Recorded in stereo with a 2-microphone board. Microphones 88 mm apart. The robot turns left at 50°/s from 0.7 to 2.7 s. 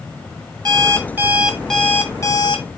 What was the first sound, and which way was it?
An alarm clock, 135° right.